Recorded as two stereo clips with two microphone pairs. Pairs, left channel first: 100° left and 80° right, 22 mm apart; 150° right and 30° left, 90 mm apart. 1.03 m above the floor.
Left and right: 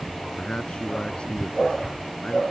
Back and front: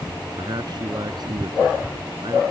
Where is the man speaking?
65° left.